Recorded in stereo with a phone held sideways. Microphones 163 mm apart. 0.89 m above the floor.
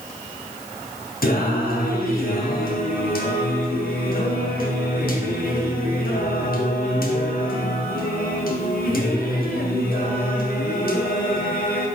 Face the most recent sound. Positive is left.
turn(degrees=70)  # may be behind; listen again after turning